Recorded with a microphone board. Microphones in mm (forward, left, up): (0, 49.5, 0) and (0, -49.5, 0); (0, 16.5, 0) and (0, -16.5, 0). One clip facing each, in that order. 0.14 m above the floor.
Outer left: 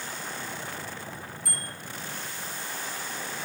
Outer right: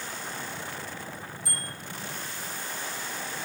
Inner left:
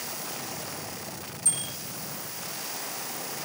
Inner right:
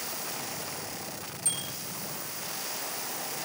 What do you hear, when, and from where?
1.4 s a bicycle bell: 30° right (ahead or behind), 8 m